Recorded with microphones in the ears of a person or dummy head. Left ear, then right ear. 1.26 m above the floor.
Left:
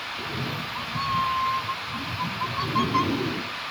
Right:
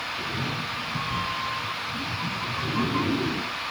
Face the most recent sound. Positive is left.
turn(degrees=55)  # may be behind; listen again after turning